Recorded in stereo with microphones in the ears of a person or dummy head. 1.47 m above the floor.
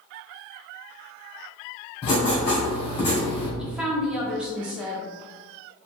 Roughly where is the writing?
Left.